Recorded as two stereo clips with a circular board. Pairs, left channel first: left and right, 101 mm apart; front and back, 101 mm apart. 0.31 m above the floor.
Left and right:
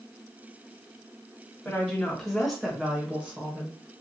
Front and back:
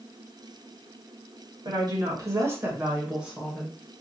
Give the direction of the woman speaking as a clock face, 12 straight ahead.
6 o'clock.